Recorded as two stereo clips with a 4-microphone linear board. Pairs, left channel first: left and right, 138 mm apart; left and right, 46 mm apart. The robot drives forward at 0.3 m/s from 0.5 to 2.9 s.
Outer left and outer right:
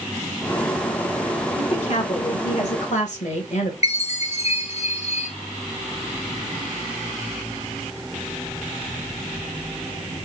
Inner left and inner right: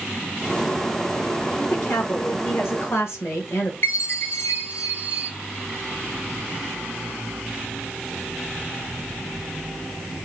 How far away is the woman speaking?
About 1.5 m.